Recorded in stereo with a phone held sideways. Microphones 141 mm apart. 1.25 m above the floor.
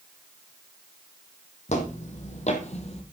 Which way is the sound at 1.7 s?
55° left (ahead or behind).